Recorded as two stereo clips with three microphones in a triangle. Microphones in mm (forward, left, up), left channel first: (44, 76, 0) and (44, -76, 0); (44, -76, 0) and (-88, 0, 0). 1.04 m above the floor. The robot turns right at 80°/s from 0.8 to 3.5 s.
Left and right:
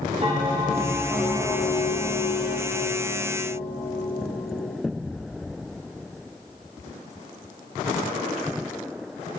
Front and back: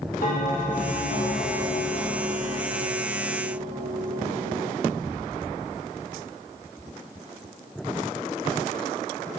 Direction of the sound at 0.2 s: 40° right.